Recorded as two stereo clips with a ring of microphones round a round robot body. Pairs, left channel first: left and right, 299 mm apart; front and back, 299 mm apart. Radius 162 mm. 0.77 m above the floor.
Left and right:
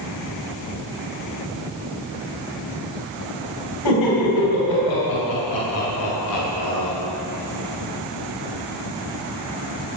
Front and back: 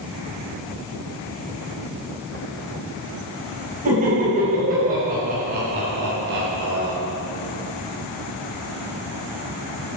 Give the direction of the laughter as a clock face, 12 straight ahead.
8 o'clock.